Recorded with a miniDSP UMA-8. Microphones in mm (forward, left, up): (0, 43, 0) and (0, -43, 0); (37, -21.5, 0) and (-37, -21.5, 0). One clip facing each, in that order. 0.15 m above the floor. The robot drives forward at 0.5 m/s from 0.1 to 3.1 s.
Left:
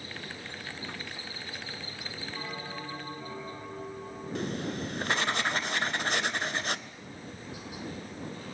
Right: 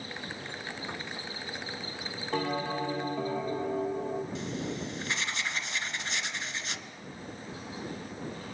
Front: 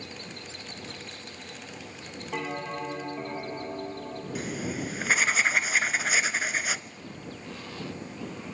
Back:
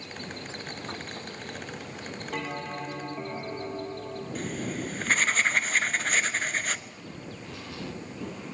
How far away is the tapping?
About 5.5 m.